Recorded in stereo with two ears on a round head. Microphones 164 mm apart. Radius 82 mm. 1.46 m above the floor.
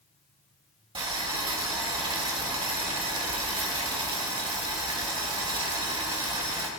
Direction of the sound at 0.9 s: 30° right (ahead or behind).